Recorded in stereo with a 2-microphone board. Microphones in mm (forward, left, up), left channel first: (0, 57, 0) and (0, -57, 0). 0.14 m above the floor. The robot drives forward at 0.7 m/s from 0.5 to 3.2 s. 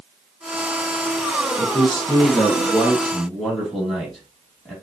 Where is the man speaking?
10° left (ahead or behind), 2 m; by 4.7 s 5° left (ahead or behind), 3 m.